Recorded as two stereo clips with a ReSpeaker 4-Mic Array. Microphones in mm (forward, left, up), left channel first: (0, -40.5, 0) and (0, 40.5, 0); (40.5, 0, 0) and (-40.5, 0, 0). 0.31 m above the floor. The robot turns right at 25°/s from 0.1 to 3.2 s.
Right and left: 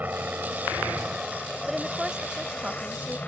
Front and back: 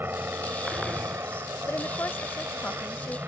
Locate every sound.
0.0 s a helicopter: 140° left; by 3.3 s 145° right
1.7 s a woman speaking: 10° left; by 3.2 s 50° left